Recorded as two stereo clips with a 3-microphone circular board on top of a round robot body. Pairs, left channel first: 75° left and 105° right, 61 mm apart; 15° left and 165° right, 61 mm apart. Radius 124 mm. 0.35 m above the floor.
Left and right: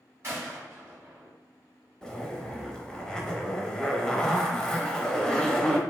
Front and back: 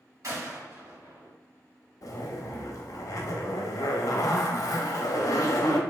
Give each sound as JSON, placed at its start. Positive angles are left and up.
{"t": 0.2, "sound": "a gunshot", "azimuth_deg": -145, "distance_m": 1.8}
{"t": 2.0, "sound": "a zipper", "azimuth_deg": -5, "distance_m": 0.6}